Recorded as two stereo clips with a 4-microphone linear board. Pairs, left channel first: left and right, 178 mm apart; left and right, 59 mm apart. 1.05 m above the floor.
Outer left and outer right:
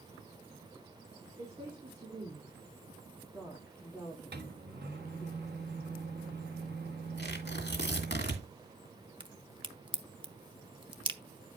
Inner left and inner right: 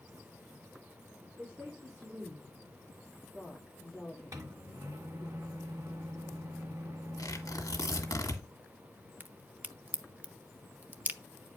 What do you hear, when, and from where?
1.4 s a woman speaking: 35° right (ahead or behind), 2.5 m; by 5.3 s 20° left (ahead or behind), 1.6 m
4.3 s a microwave: 65° right (ahead or behind), 1.2 m
7.2 s tearing paper: 75° left (ahead or behind), 1.9 m
9.2 s a crack: 30° right (ahead or behind), 0.6 m